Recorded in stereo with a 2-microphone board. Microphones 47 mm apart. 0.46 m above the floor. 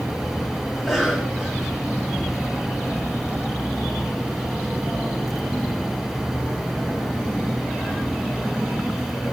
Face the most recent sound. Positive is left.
turn(degrees=0)  # may be behind; listen again after turning